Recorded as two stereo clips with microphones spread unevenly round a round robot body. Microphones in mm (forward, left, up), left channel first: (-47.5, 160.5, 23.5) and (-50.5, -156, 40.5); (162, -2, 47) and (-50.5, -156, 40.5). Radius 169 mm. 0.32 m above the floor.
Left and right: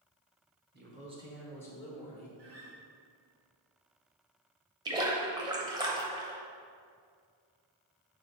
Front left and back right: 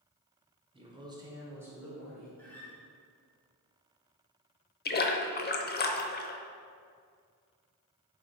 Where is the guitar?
50° right, 2 m.